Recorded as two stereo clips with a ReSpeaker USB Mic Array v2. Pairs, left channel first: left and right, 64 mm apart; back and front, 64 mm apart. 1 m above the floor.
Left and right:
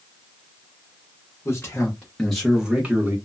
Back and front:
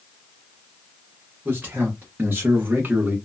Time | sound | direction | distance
1.4 | a man speaking | 55° left | 1.0 m